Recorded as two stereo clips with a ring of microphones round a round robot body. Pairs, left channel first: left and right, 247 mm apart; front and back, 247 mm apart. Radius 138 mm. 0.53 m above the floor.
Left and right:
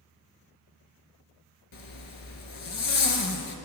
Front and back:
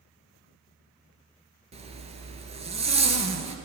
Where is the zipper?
115° left, 1.5 m.